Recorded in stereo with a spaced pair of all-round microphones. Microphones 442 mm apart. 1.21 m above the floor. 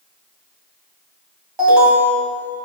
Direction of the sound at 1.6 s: 70° right (ahead or behind).